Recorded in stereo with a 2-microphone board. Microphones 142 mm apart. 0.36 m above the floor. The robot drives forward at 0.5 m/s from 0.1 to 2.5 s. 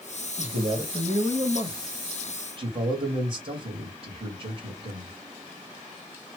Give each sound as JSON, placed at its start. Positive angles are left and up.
{"t": 0.4, "sound": "a man speaking", "side_deg": -50, "distance_m": 1.7}